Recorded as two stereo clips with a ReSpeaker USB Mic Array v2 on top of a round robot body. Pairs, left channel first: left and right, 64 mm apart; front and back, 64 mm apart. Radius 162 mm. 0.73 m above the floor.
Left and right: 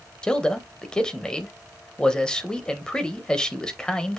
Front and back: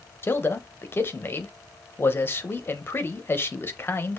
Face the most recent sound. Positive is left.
turn(degrees=20)